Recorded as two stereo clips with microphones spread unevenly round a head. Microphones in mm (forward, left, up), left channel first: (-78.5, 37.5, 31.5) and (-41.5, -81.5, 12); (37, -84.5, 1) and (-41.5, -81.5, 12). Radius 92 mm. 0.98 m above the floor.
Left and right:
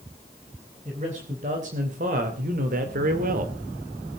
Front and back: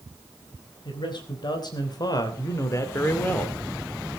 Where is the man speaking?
20° right, 4 m; by 3.5 s 75° right, 2 m.